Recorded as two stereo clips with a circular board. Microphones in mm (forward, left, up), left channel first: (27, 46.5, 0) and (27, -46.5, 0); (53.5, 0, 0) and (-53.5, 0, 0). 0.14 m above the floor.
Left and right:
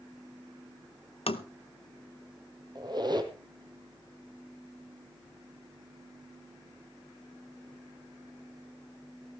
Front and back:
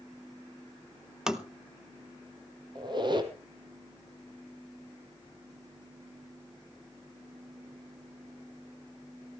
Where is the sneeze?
I don't hear a sneeze.